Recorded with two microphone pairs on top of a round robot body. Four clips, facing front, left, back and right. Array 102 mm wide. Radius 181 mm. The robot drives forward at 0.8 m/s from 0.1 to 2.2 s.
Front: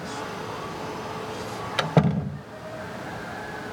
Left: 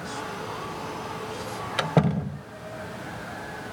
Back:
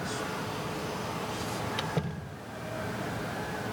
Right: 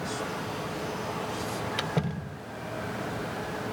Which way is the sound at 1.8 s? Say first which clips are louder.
Left 7 dB, front 11 dB; 40° left.